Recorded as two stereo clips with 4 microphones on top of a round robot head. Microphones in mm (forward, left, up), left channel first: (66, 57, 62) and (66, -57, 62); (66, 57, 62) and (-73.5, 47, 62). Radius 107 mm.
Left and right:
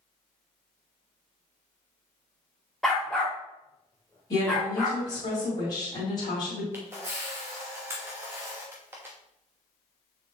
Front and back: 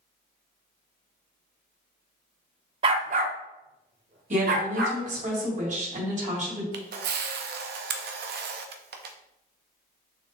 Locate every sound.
2.8 s a dog barking: straight behind, 0.6 m; by 5.0 s 175° left, 2.0 m
4.3 s a woman speaking: 155° left, 3 m
6.7 s a camera shutter: 165° right, 0.8 m